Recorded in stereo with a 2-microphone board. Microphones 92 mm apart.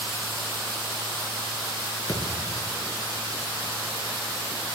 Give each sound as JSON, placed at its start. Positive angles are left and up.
{"t": 2.1, "sound": "a thud", "side_deg": 40, "distance_m": 4.5}